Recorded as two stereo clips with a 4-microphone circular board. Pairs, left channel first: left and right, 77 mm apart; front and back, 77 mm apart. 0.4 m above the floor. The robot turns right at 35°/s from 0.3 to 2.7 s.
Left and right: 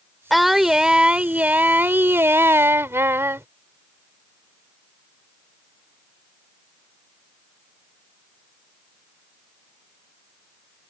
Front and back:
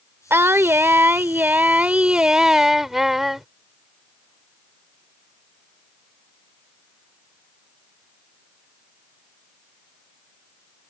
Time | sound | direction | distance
0.3 | singing | straight behind | ?